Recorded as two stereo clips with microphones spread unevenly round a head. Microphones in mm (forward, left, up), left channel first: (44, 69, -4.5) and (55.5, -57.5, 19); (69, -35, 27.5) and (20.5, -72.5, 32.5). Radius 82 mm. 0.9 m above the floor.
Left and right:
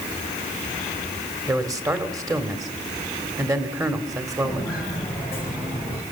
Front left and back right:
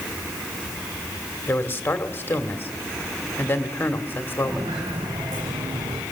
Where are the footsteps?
Straight behind, 5 m; by 6.0 s 160° right, 5.5 m.